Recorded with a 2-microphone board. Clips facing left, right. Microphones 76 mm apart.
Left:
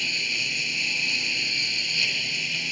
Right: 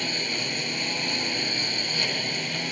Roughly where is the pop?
I don't hear a pop.